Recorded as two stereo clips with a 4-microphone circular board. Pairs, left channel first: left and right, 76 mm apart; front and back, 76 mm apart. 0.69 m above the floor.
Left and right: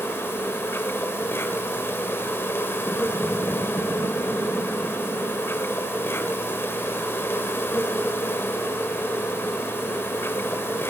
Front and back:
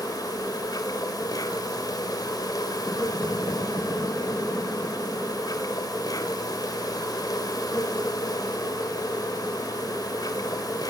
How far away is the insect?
About 2.5 m.